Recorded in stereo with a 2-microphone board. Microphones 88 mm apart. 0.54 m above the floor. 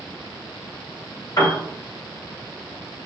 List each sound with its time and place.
1.4 s a piano: 40° left (ahead or behind), 1.7 m